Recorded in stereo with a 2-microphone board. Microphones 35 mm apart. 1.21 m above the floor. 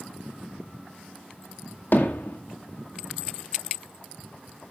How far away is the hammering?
About 2 m.